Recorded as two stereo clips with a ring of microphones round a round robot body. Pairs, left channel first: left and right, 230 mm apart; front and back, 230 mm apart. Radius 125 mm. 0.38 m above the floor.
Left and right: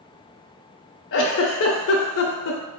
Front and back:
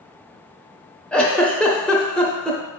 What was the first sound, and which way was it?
A giggle, 85° left.